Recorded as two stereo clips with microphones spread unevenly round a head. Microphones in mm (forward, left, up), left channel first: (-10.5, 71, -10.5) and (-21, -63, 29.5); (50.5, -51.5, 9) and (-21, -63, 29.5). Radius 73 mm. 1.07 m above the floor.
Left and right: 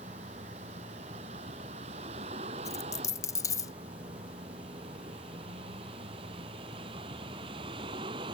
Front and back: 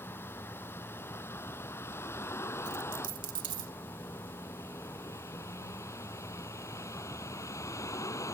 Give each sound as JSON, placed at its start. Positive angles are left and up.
{"t": 0.0, "sound": "a vehicle", "azimuth_deg": -45}
{"t": 2.6, "sound": "a dropped coin", "azimuth_deg": 160}